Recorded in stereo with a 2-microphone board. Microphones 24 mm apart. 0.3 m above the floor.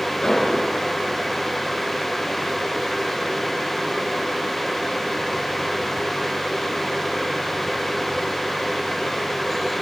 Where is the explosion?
35° left (ahead or behind), 3 m.